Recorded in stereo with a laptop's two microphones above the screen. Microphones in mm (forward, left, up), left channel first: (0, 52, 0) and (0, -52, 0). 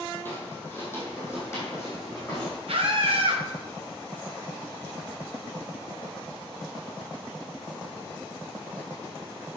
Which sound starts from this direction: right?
A scream, at 2.7 s.